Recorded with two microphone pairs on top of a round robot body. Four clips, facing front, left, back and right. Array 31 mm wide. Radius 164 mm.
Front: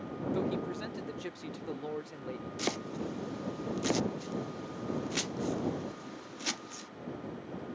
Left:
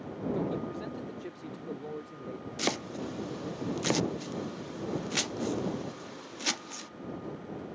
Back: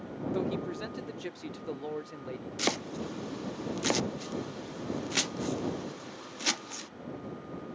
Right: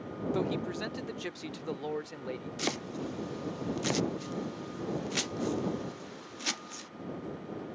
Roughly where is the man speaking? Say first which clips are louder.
Right 2 dB, back 1 dB; right.